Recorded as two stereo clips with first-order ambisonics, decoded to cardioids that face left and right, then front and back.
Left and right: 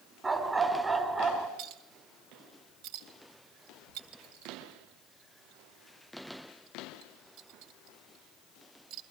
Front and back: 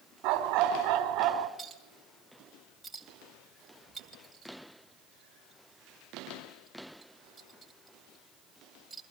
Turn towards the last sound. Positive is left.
turn(degrees=-100)